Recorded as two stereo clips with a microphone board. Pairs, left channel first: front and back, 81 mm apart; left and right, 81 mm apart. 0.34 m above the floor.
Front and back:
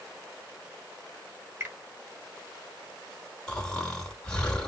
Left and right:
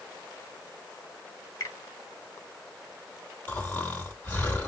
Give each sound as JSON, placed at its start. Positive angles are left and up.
{"t": 1.6, "sound": "a finger snap", "azimuth_deg": 130, "distance_m": 1.8}
{"t": 3.5, "sound": "snoring", "azimuth_deg": 65, "distance_m": 1.4}